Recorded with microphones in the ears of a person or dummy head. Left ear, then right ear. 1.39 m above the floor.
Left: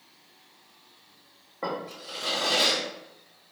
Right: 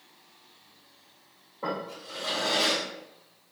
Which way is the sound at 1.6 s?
60° left (ahead or behind).